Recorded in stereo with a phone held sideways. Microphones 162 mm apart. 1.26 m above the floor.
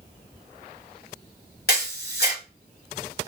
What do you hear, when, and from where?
1.7 s a camera shutter: 70° left (ahead or behind), 2.5 m